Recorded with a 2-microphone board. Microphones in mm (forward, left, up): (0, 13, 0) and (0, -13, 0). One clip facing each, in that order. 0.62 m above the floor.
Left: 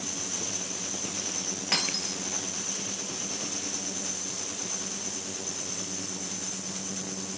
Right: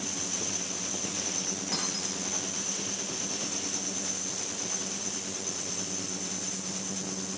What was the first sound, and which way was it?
Breaking glass, 65° left (ahead or behind).